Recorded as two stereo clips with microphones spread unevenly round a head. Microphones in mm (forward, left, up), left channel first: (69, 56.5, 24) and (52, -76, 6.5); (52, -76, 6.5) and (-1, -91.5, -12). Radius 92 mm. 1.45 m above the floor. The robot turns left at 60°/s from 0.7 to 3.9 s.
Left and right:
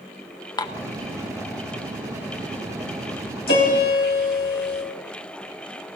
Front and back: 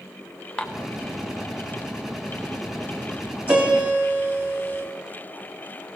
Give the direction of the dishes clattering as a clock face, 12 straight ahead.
10 o'clock.